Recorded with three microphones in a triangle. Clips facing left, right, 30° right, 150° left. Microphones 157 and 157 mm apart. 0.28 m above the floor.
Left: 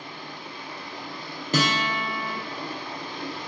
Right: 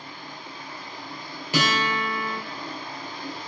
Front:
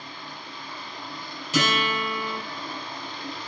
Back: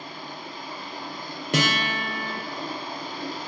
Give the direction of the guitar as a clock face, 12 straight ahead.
8 o'clock.